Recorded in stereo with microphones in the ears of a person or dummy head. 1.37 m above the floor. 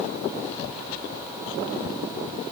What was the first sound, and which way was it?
Only background noise.